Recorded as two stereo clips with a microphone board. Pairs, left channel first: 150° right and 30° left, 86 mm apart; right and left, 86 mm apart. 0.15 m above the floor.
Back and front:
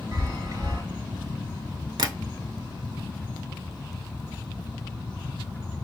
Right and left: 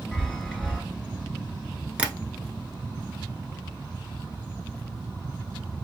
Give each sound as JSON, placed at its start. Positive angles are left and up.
{"t": 0.1, "sound": "a chime", "azimuth_deg": 0, "distance_m": 2.0}
{"t": 2.0, "sound": "tapping", "azimuth_deg": 20, "distance_m": 0.6}